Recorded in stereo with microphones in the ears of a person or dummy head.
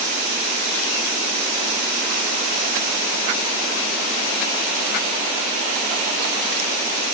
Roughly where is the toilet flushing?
No toilet flushing in this recording.